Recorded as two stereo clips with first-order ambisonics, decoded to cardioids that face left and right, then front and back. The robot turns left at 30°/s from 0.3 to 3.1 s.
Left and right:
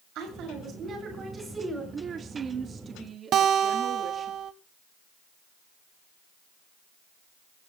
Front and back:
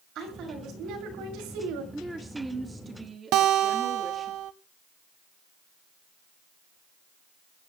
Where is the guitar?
145° right, 0.7 m.